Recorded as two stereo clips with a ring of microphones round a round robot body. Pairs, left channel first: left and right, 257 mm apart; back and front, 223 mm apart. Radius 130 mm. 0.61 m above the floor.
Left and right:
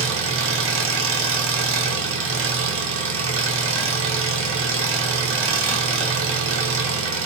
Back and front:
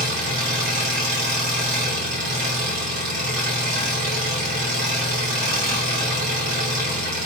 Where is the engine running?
50° right, 0.8 m.